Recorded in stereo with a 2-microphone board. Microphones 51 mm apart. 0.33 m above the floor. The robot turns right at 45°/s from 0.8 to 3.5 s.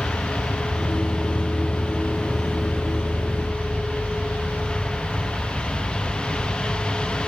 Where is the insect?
100° left, 3 m; by 7.3 s 140° right, 3 m.